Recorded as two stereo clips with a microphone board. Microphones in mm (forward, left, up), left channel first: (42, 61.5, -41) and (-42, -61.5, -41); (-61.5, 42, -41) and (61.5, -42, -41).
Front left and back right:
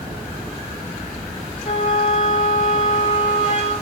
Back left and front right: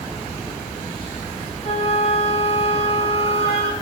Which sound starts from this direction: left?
A flute, at 1.6 s.